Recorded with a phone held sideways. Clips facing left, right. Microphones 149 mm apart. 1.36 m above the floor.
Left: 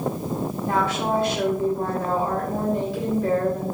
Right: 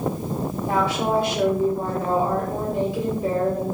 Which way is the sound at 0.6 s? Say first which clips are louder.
Right 1 dB; 15° right (ahead or behind).